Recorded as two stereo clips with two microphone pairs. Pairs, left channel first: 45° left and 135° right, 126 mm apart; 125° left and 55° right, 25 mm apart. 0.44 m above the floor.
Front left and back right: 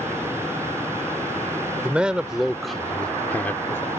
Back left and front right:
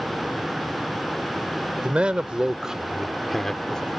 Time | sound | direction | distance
1.8 | a man speaking | 55° right | ?